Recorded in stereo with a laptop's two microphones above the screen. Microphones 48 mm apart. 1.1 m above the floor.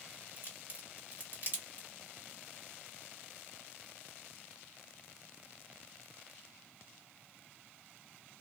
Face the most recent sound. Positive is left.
turn(degrees=-45)  # may be behind; listen again after turning